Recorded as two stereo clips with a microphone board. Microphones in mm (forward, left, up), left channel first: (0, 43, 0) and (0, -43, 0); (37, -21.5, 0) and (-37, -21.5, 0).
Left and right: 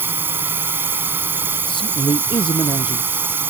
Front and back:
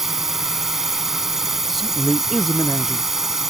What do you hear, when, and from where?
0.0 s a drone: 100° right
1.7 s a man speaking: 90° left